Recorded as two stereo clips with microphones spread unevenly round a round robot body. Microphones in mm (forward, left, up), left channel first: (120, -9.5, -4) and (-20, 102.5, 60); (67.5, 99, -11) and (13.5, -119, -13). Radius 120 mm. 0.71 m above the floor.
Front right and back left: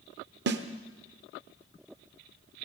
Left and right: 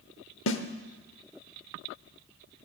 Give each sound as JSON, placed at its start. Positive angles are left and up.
{"t": 0.5, "sound": "a snare drum", "azimuth_deg": 120, "distance_m": 1.0}